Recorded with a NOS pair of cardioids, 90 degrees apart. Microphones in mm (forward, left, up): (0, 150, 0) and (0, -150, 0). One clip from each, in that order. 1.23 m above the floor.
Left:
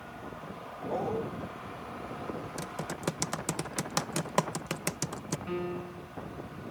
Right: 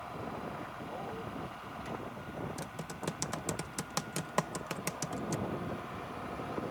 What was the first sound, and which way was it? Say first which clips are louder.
A dog barking: left 13 dB; 65° left.